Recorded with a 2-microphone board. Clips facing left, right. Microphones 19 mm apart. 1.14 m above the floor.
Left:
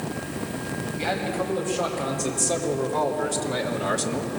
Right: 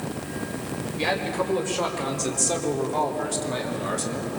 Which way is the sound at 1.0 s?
35° right (ahead or behind).